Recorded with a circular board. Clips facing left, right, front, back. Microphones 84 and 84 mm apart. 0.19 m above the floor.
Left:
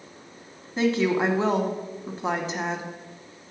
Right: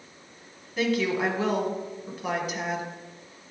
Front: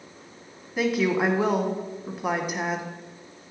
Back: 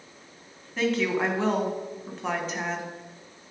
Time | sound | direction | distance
0.8 | a woman speaking | 70° left | 1.1 m